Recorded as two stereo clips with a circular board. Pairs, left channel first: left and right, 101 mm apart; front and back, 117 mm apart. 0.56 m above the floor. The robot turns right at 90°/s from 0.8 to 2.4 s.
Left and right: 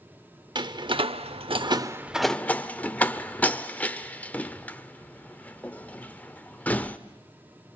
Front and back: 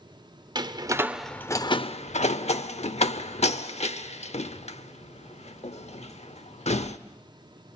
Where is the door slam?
130° right, 0.8 m; by 7.0 s 15° left, 0.8 m.